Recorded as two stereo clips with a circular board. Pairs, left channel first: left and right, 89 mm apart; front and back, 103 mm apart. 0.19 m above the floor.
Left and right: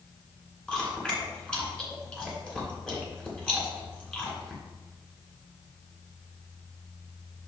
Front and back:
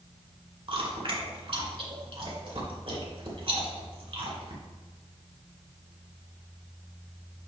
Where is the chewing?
165° left, 2.5 m.